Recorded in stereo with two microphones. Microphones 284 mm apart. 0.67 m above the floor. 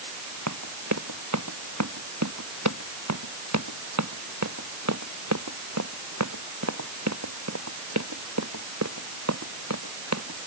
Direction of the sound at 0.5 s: 75° right (ahead or behind).